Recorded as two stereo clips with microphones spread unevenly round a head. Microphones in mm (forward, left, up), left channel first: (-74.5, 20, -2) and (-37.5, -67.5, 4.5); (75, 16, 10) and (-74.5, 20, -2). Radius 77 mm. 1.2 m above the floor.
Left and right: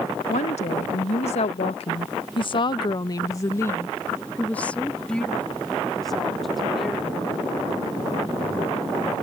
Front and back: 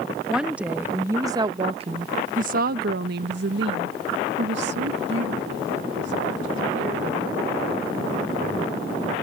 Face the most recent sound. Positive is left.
turn(degrees=-155)